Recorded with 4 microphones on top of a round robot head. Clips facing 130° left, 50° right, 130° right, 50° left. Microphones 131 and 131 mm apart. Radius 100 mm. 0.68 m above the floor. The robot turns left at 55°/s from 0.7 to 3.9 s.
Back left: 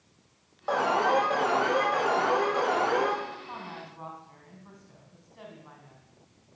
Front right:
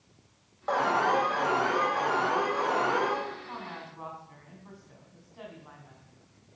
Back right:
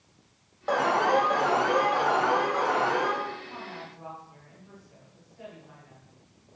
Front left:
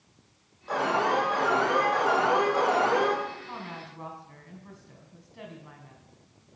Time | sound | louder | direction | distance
0.7 | an alarm | back left 1 dB, back right 3 dB | 145° right | 6.5 m
3.4 | a woman speaking | even, front left 1 dB | 65° left | 5 m